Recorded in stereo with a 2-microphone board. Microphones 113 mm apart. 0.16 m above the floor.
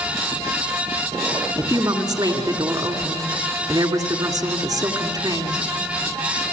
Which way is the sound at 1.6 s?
35° right (ahead or behind).